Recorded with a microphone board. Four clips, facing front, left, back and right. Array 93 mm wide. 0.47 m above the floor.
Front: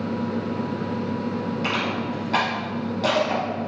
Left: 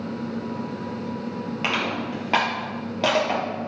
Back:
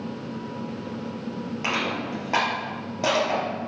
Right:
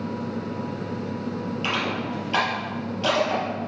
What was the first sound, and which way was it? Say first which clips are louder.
Crushing: left 2 dB, back 2 dB; 105° left.